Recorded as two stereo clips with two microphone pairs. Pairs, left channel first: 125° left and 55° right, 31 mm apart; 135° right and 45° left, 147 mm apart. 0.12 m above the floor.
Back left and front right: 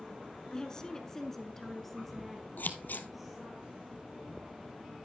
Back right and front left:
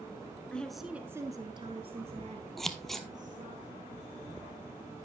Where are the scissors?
135° left, 0.9 m.